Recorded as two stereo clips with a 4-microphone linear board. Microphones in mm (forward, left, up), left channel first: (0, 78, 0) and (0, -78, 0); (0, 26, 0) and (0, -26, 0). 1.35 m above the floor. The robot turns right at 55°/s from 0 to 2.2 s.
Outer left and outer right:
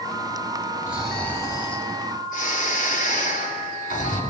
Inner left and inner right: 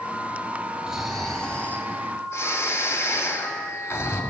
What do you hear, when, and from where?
0.9 s snoring: 10° right, 4 m; by 4.2 s 65° left, 4 m